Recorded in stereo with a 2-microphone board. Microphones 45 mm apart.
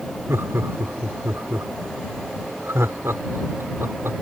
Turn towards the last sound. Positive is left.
turn(degrees=-80)